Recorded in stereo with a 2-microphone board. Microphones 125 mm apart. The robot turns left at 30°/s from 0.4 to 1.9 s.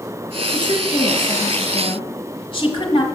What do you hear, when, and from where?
0.5 s a woman speaking: 120° left, 1.6 m; by 3.0 s 80° left, 1.6 m